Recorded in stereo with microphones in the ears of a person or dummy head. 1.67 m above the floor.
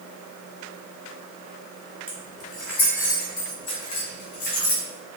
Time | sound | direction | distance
2.1 | keys jangling | 5° right (ahead or behind) | 1.4 m